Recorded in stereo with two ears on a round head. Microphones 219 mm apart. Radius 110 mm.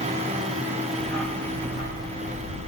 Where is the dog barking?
40° right (ahead or behind), 3 m; by 2.7 s 60° right (ahead or behind), 2.5 m.